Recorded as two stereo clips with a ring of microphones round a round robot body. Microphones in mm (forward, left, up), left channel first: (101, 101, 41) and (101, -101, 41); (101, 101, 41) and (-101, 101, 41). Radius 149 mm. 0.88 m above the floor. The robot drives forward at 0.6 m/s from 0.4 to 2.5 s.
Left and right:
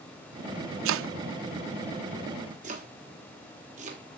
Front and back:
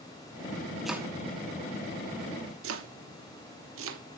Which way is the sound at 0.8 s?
90° right.